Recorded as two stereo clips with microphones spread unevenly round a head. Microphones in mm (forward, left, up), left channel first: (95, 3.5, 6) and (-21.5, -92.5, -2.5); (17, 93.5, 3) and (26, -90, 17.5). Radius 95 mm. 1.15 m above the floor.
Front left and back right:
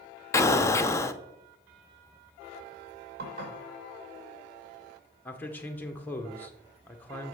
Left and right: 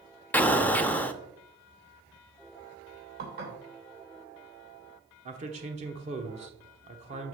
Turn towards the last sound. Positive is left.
turn(degrees=-40)